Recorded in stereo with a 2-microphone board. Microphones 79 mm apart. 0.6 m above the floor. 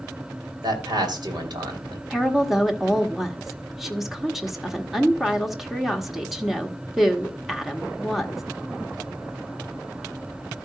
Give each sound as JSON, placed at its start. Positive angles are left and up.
{"t": 0.6, "sound": "a man speaking", "side_deg": -60, "distance_m": 2.5}
{"t": 2.1, "sound": "a woman speaking", "side_deg": -5, "distance_m": 1.1}